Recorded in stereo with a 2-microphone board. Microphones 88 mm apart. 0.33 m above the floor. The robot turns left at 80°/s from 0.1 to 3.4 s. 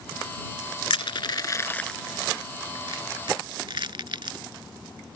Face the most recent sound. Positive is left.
turn(degrees=-65)  # may be behind; listen again after turning